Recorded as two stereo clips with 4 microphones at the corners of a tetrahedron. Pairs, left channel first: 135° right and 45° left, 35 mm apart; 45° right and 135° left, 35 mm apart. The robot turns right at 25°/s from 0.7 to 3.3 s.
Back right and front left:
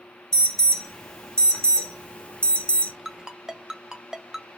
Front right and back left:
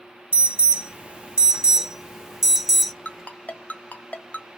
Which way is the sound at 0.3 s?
160° left.